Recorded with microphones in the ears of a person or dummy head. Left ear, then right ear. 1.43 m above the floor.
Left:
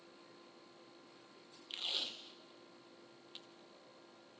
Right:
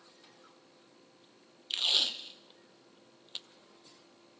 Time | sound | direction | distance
1.7 | tape being pulled | 20° right (ahead or behind) | 0.7 m